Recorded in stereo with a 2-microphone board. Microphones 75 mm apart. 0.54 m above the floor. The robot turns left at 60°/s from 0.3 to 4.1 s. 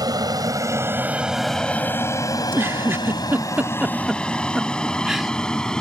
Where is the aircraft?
60° right (ahead or behind); by 5.8 s 10° left (ahead or behind).